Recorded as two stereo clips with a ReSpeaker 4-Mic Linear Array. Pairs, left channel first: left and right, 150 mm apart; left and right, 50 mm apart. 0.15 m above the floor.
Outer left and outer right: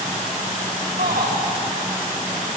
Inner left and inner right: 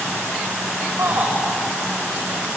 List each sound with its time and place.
1.0 s a shout: 65° right (ahead or behind), 9.5 m